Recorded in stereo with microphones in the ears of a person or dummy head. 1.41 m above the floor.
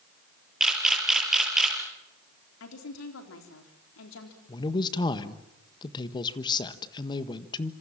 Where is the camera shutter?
Centre (ahead or behind), 5 m.